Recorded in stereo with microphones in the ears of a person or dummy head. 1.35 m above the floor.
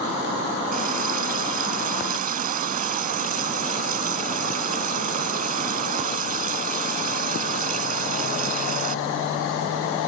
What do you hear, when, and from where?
0.7 s a running tap: 45° right (ahead or behind)